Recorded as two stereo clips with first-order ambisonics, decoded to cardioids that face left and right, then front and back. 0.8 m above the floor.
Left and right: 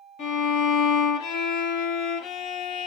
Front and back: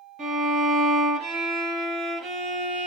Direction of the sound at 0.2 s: 125° left.